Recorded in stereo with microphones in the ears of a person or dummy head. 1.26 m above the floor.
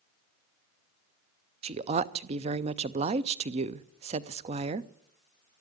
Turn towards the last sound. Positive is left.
turn(degrees=-35)  # may be behind; listen again after turning